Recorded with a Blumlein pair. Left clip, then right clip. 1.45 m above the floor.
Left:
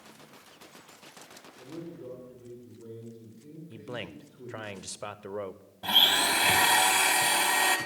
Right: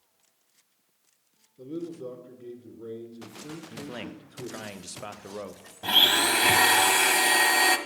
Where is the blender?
15° right, 1.1 m.